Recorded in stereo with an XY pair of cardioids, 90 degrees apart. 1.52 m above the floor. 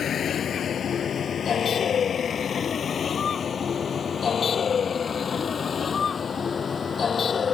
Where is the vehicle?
65° left; by 7.5 s 50° left.